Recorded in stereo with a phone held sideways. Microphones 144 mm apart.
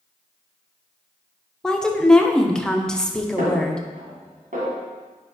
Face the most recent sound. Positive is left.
turn(degrees=-65)  # may be behind; listen again after turning